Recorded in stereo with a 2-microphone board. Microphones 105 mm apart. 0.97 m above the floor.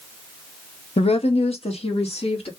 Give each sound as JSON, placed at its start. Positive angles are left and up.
{"t": 1.0, "sound": "a woman speaking", "side_deg": 70, "distance_m": 0.8}